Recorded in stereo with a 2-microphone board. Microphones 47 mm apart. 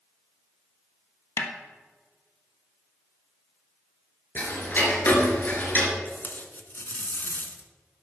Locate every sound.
1.4 s a snare drum: 65° left (ahead or behind), 1.5 m
4.3 s ticking: 40° left (ahead or behind), 3 m
6.0 s tape being pulled: 40° left (ahead or behind), 1.1 m